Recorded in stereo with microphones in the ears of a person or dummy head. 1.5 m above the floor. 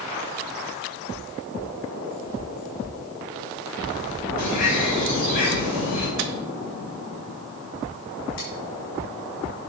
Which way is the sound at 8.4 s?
60° left (ahead or behind).